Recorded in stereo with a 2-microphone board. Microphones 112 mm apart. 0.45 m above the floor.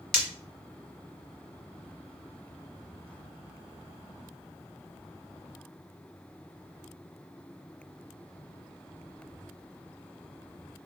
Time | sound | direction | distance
0.1 | breaking glass | centre (ahead or behind) | 1.2 m